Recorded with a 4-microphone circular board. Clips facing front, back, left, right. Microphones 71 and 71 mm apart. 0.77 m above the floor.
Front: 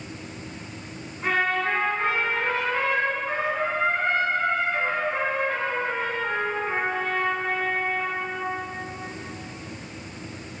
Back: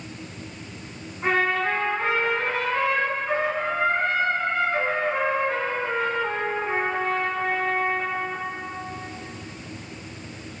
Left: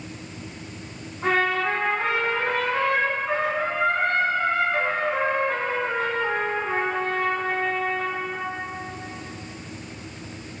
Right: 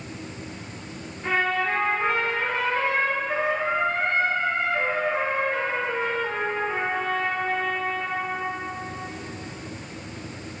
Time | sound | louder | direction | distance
1.2 | a trumpet | back 1 dB, left 2 dB | 105° left | 5 m